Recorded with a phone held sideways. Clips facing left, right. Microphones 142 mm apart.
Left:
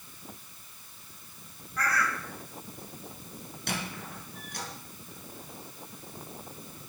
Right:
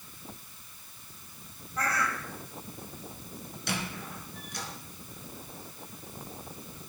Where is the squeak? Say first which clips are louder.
Right 1 dB; 50° left (ahead or behind), 4.5 m.